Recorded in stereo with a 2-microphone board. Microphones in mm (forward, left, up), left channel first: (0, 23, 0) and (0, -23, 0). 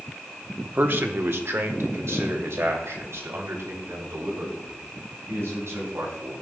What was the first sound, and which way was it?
A man speaking, 40° right (ahead or behind).